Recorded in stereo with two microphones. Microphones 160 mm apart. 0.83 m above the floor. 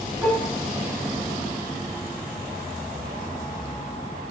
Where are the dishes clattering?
5° right (ahead or behind), 8.5 m.